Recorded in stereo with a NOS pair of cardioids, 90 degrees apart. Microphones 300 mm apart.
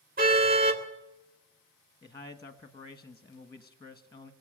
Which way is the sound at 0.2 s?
30° right.